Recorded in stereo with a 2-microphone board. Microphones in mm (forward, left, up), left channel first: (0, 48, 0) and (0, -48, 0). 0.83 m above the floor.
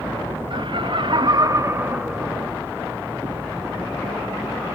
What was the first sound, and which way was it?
Laughter, 55° right (ahead or behind).